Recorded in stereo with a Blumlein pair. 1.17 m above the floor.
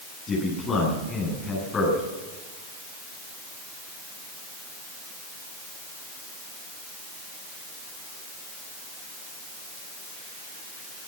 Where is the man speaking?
20° left, 10 m.